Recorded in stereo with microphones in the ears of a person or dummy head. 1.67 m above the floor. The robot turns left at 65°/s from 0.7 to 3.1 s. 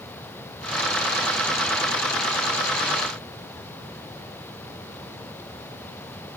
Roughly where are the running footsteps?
No running footsteps in this recording.